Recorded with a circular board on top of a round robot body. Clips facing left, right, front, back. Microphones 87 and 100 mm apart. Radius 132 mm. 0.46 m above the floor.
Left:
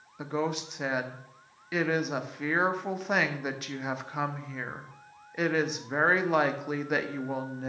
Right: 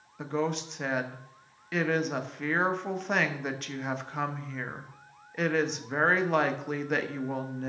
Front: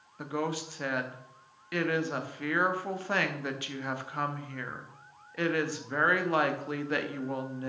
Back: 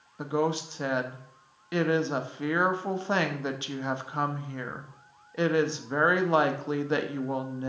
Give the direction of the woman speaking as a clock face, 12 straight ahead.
6 o'clock.